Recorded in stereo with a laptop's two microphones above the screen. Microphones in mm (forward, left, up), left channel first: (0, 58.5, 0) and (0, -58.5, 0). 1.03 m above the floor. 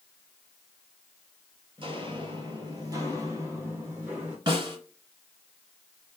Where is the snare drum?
45° right (ahead or behind), 1.7 m.